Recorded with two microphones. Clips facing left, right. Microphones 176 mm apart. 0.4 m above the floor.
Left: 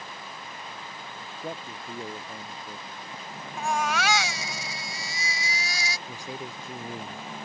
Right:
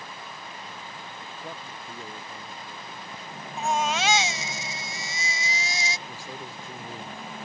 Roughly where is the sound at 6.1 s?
Centre.